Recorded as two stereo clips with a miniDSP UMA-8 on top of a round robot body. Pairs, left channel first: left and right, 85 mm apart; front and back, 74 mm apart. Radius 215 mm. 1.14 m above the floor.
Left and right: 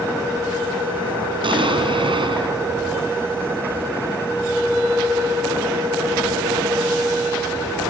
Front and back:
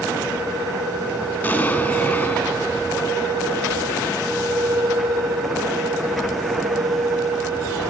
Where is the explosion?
70° right, 3.5 m.